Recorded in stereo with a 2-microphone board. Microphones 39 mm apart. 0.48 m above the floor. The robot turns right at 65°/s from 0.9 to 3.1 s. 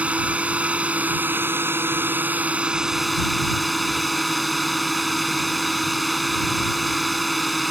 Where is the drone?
145° right; by 7.7 s straight ahead.